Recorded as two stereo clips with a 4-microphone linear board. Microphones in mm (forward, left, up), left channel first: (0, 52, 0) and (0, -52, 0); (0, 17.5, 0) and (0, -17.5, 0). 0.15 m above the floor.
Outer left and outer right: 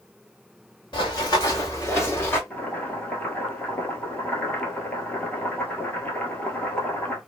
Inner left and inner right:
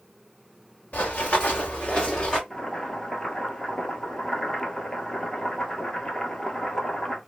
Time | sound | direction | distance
0.9 | running footsteps | 50° left (ahead or behind) | 1.6 m
2.5 | boiling | 15° left (ahead or behind) | 1.2 m